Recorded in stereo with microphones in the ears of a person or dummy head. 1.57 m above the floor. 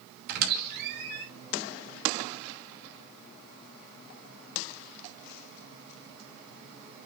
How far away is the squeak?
About 4 m.